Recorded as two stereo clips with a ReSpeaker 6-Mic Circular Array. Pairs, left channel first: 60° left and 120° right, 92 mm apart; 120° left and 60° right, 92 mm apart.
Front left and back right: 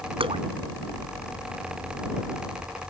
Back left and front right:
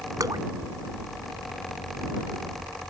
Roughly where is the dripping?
Right.